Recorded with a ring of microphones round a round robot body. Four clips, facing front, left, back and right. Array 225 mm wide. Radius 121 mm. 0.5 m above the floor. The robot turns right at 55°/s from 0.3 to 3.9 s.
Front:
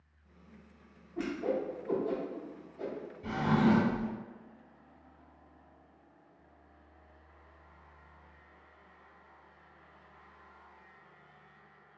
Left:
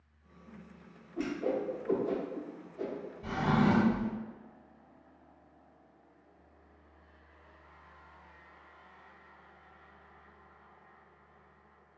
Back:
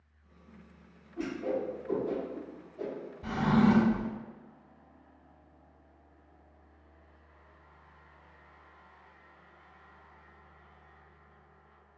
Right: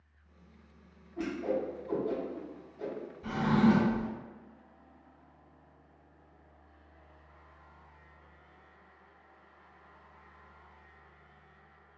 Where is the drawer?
175° left, 0.9 m; by 4.1 s 145° right, 0.9 m.